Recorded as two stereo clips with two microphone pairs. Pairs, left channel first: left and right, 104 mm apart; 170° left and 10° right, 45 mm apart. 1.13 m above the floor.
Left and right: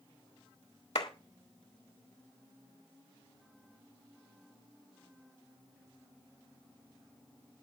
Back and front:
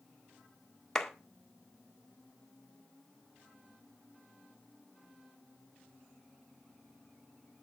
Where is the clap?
95° left, 1.8 m.